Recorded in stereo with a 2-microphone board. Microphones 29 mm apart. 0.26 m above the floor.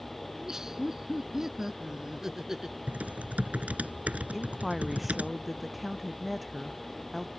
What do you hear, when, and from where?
0.3 s laughter: 20° right (ahead or behind)
2.9 s typing on a keyboard: 55° right (ahead or behind)
4.3 s a woman speaking: centre (ahead or behind)